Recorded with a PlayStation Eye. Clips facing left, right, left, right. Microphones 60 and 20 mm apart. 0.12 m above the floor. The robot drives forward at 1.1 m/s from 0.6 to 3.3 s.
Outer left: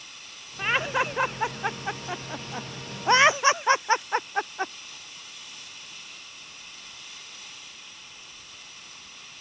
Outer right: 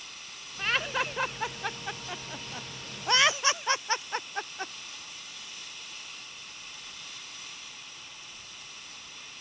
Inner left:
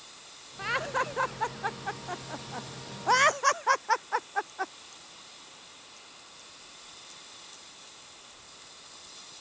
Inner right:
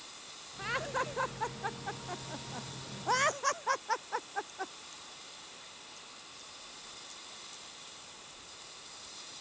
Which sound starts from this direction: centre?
Laughter, at 0.6 s.